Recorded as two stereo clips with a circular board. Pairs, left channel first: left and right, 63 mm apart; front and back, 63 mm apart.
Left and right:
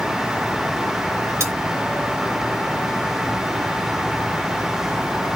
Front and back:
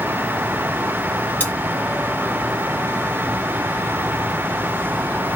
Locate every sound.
1.4 s cutlery clinking: 60° right, 2.0 m